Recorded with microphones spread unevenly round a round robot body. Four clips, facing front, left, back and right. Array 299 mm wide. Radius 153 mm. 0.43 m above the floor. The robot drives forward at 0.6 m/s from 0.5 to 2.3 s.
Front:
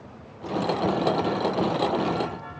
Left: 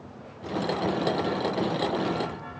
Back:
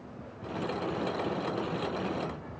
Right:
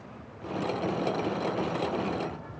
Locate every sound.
Only background noise.